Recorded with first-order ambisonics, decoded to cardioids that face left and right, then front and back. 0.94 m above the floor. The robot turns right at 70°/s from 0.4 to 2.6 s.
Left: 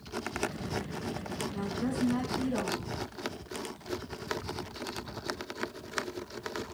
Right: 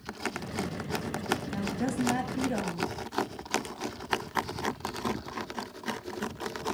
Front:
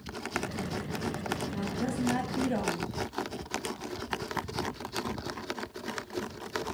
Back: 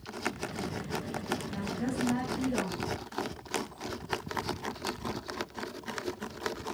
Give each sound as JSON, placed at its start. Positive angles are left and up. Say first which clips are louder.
{"t": 1.5, "sound": "a woman speaking", "louder": "right 2 dB, front 1 dB", "azimuth_deg": -110, "distance_m": 5.0}